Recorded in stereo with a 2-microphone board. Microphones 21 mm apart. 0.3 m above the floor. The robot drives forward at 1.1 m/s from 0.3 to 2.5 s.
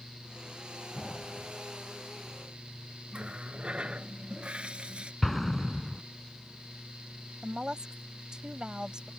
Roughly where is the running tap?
Right.